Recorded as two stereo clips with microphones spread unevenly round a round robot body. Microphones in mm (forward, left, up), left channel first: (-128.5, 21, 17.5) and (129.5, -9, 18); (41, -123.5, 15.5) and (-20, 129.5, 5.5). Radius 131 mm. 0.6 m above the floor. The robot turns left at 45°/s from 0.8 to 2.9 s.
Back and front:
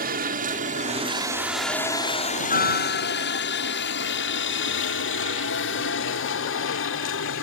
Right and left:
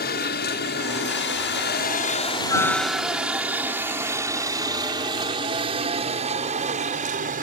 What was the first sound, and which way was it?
A helicopter, 45° right.